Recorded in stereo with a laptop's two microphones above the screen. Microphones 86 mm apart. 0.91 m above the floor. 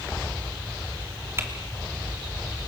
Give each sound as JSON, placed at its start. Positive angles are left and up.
{"t": 1.4, "sound": "typing on a keyboard", "side_deg": -30, "distance_m": 2.5}